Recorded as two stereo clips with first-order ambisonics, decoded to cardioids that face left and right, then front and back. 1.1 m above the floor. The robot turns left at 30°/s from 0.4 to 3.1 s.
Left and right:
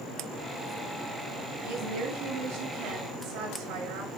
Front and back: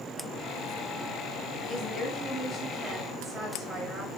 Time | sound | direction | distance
1.6 | a woman speaking | 65° right | 6.5 m